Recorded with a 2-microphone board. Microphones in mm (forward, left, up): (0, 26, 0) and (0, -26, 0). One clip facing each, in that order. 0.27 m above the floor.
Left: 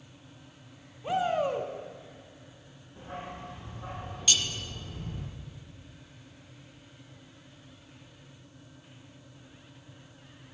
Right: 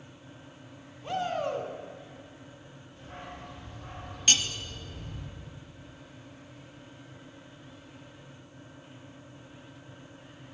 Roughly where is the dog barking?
Left.